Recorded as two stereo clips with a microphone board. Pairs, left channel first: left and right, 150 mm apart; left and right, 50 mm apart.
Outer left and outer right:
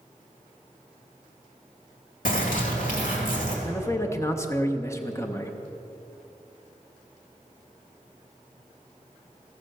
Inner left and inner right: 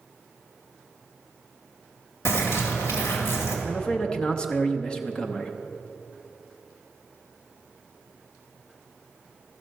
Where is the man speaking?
20° left (ahead or behind), 0.6 m.